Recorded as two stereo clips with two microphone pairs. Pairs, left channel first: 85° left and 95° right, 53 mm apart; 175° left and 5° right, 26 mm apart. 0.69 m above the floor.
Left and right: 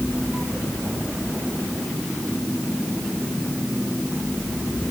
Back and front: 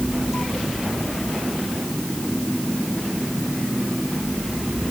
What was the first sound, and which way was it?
Only background noise.